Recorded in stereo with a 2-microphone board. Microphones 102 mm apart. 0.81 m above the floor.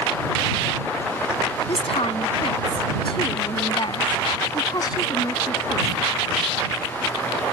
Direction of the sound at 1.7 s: 70° left (ahead or behind).